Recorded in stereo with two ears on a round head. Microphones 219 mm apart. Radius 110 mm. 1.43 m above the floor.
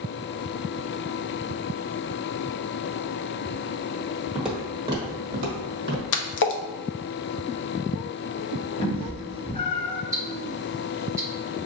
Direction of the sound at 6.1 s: 50° left (ahead or behind).